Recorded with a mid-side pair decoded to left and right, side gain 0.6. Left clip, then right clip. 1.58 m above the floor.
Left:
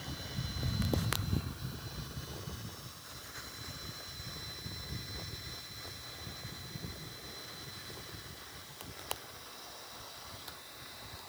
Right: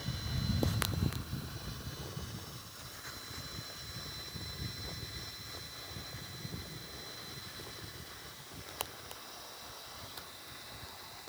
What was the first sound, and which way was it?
Only background noise.